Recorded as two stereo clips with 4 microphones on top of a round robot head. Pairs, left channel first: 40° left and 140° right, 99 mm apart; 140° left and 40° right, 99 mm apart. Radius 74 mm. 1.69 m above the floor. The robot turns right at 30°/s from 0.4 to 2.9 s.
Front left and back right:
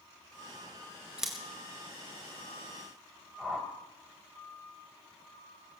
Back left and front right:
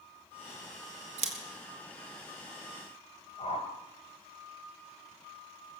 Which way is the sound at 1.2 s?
55° right.